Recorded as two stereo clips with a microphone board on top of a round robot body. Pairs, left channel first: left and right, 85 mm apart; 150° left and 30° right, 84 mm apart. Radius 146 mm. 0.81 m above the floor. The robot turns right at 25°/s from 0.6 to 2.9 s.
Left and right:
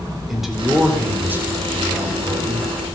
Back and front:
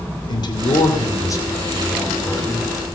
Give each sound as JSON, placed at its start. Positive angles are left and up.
{"t": 0.3, "sound": "a man speaking", "azimuth_deg": -175, "distance_m": 2.5}